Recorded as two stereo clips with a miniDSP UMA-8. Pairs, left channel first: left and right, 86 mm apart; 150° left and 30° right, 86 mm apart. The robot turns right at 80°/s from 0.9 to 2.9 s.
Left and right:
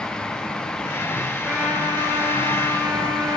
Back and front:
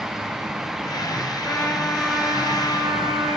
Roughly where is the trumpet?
Behind right.